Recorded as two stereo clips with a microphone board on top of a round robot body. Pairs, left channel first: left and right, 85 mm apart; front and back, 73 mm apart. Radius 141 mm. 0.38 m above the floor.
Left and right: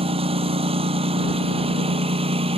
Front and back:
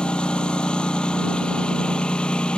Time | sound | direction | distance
0.0 | a lawn mower | 80° right | ?